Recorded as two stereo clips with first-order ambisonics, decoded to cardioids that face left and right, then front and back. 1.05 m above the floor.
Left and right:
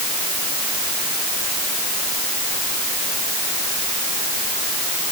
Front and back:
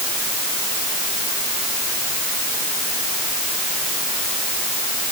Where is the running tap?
No running tap in this recording.